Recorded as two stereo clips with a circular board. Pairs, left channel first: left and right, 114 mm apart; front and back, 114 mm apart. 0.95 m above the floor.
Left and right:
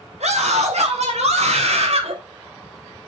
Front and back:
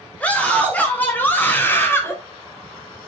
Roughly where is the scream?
Right.